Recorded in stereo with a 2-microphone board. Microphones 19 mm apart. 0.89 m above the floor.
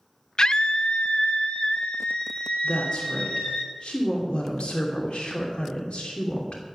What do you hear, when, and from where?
0.4 s a scream: 45° left (ahead or behind), 0.5 m; by 3.6 s 85° left, 3.5 m
2.6 s a woman speaking: 75° left (ahead or behind), 2.5 m